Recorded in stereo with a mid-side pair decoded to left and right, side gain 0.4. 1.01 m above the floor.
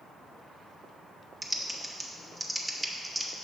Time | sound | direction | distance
1.4 | typing on a keyboard | 10° right | 0.9 m